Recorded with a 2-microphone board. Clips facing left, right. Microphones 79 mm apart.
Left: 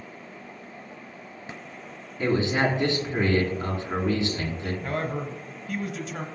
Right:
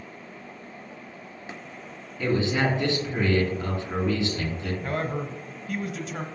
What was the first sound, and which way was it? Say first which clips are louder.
A man speaking: left 1 dB; 30° left (ahead or behind).